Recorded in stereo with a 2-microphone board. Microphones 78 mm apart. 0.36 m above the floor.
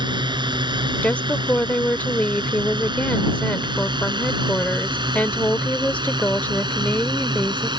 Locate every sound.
0.0 s a drone: 70° right (ahead or behind)
1.0 s a woman speaking: 20° left (ahead or behind)